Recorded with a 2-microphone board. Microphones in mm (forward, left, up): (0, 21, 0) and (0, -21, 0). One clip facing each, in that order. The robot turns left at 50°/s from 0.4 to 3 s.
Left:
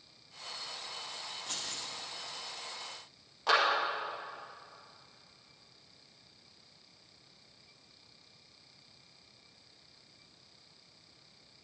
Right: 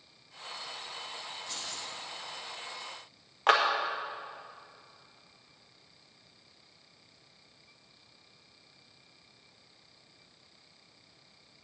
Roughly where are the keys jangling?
Left.